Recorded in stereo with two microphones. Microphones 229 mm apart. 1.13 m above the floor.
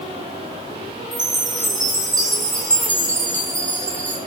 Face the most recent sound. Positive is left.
turn(degrees=-35)  # may be behind; listen again after turning